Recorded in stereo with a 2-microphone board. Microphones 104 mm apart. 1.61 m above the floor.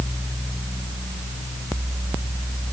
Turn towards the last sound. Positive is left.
No sound to turn to.